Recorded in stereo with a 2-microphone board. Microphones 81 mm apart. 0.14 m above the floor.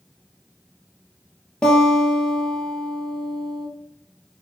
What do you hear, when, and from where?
1.6 s a guitar: 15° left (ahead or behind), 2.5 m